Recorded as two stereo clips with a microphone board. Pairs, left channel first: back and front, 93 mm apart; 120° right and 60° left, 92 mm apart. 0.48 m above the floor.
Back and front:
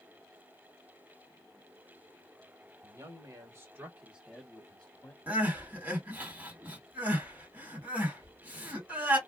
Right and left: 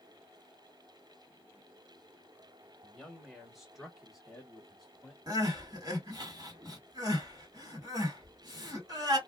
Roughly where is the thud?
I don't hear a thud.